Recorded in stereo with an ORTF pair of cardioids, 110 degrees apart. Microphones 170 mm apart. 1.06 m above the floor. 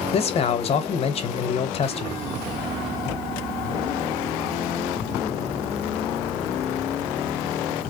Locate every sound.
0.1 s a man speaking: 35° left, 0.8 m